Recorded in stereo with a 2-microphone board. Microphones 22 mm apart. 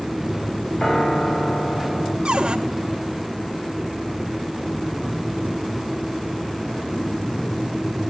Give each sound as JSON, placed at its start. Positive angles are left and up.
{"t": 0.8, "sound": "a piano", "side_deg": 35, "distance_m": 3.0}
{"t": 2.2, "sound": "a cupboard door", "side_deg": -40, "distance_m": 1.7}